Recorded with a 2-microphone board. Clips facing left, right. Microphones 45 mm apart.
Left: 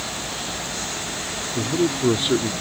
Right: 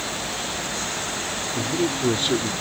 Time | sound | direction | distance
1.6 | a man speaking | 15° left (ahead or behind) | ?